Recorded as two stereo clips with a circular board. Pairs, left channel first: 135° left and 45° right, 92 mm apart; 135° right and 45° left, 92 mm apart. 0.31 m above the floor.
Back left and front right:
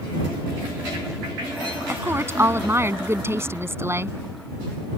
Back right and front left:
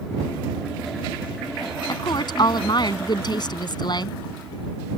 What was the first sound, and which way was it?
A woman speaking, 105° right.